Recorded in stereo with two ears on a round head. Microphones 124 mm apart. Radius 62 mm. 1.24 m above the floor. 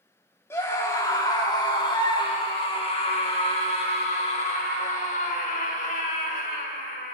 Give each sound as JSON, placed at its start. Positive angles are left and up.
{"t": 0.5, "sound": "a scream", "side_deg": 20, "distance_m": 3.5}